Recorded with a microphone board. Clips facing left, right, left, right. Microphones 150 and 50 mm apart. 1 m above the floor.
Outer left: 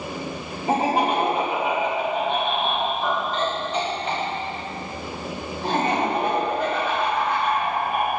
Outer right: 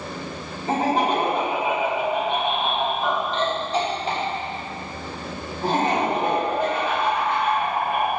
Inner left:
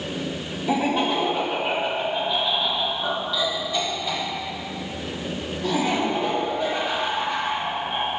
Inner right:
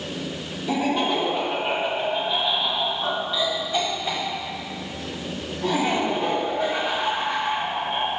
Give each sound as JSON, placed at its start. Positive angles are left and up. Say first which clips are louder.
{"t": 0.7, "sound": "laughter", "louder": "even, inner left 1 dB", "side_deg": 15, "distance_m": 2.5}